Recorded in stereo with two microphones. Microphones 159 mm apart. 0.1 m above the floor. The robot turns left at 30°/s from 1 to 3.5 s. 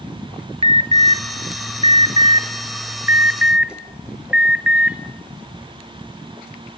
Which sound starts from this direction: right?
An alarm, at 0.6 s.